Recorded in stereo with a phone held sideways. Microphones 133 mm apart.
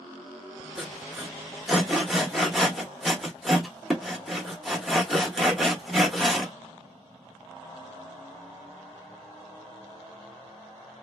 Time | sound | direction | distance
0.8 | sawing | centre (ahead or behind) | 1.3 m